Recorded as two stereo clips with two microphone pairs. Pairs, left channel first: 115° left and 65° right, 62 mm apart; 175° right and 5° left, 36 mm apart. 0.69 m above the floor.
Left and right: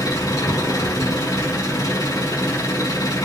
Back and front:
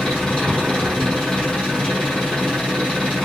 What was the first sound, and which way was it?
An engine running, 115° left.